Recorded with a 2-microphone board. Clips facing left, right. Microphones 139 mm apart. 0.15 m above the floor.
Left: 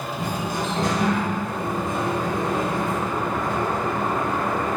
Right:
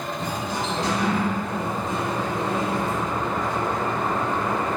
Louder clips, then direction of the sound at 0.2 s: Left 3 dB; 50° left (ahead or behind).